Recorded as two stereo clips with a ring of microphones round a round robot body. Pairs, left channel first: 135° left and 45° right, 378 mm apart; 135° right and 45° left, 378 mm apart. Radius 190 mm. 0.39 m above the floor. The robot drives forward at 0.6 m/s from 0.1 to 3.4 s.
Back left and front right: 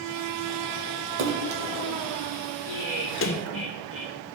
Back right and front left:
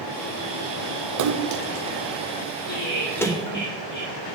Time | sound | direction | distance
1.2 | a splash | 10° left | 1.1 m
2.6 | laughter | 175° left | 5.5 m